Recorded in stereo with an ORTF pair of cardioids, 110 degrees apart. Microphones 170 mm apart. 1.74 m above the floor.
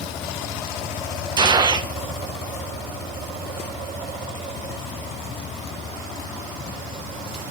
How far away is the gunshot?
About 0.7 m.